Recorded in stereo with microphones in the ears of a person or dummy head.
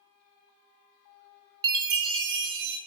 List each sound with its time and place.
1.6 s a chime: 25° right (ahead or behind), 1.2 m